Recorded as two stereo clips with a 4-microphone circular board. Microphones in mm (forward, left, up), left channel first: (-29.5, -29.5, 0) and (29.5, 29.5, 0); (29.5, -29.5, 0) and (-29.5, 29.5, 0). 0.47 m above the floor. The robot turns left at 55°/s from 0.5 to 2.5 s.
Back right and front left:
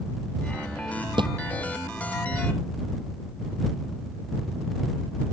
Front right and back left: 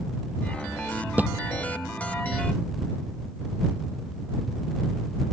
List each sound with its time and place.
1.2 s a thud: 65° left; by 1.3 s 60° left